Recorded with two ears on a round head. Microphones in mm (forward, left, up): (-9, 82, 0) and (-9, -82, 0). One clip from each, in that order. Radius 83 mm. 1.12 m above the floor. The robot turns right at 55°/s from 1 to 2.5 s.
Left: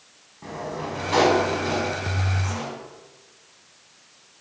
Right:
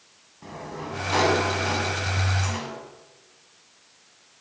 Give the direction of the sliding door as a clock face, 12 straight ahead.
6 o'clock.